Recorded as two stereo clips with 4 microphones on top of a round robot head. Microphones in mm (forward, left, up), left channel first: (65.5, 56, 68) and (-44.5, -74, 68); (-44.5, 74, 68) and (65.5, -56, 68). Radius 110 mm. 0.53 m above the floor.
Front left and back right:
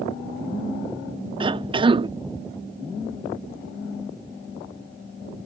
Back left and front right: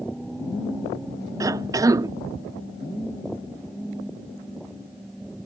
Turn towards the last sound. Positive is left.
turn(degrees=-105)